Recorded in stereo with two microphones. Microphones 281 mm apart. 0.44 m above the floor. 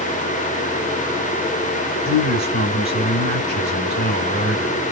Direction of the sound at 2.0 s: 40° left (ahead or behind).